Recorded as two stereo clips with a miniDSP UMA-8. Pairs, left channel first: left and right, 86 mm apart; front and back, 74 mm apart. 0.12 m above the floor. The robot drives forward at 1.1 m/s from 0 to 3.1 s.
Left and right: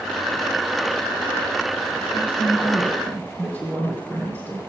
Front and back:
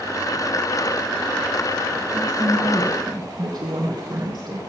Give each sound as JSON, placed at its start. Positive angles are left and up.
{"t": 2.1, "sound": "a woman speaking", "azimuth_deg": 150, "distance_m": 4.0}